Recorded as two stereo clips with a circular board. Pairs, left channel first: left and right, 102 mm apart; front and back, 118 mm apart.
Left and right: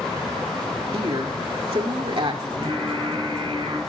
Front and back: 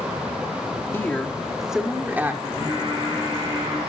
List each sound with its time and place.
0.9 s a woman speaking: 70° right, 2.0 m; by 2.3 s 110° right, 2.5 m
2.4 s singing: 125° right, 8 m